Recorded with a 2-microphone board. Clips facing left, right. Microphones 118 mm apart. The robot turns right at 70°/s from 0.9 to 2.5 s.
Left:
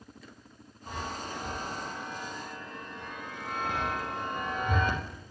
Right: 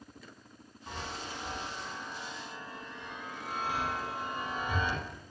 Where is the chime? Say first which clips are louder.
Left 4 dB; 10° left (ahead or behind), 4 m; by 5.0 s 60° left (ahead or behind), 4 m.